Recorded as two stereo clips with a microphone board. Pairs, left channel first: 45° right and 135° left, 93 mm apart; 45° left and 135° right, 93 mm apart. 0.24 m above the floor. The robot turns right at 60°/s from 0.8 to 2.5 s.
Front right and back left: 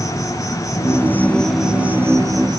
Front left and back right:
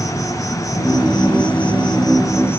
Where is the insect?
Straight ahead, 1.9 m; by 2.6 s 100° left, 1.9 m.